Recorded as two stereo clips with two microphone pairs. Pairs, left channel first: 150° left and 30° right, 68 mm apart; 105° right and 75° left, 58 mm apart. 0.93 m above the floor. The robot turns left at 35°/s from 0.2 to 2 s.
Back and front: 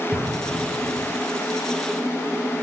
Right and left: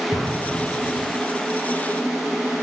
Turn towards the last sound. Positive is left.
turn(degrees=175)